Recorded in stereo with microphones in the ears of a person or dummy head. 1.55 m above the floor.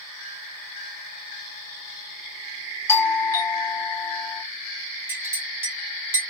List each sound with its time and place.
2.9 s a doorbell: 20° left (ahead or behind), 0.7 m
5.1 s a clink: 10° right (ahead or behind), 0.7 m